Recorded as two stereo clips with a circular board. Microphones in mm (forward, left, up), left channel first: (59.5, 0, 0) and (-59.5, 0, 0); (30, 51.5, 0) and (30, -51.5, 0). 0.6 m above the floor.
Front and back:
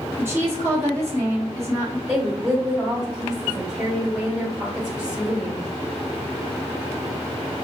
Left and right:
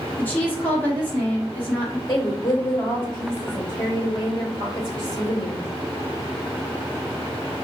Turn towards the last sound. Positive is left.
turn(degrees=100)